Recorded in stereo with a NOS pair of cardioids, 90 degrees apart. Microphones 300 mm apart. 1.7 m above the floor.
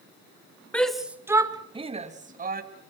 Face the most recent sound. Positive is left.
turn(degrees=-30)